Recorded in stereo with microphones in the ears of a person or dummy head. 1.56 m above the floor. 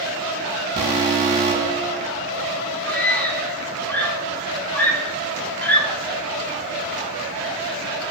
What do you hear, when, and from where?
0.8 s an alarm: 40° right (ahead or behind), 3 m
2.9 s a scream: 10° left (ahead or behind), 3 m